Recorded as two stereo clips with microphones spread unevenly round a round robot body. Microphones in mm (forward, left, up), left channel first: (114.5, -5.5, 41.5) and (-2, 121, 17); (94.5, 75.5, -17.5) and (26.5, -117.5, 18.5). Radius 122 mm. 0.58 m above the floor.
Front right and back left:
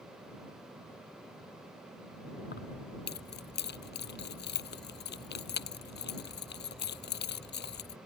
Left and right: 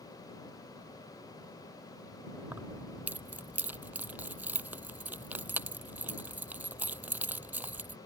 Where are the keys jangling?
30° right.